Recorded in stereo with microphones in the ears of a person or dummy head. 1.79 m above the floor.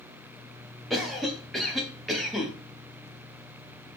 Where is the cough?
Centre (ahead or behind), 0.5 m.